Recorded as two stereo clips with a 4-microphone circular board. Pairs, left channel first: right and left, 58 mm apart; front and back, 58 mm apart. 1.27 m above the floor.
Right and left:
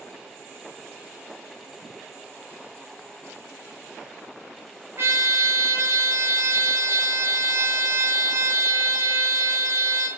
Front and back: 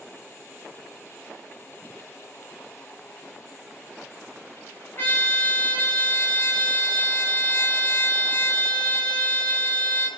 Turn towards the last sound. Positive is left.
turn(degrees=50)